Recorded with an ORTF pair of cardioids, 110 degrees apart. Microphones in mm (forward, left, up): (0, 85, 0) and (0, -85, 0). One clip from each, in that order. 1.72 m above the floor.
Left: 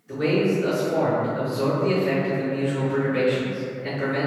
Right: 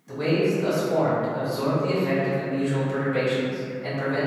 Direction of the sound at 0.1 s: 70° right.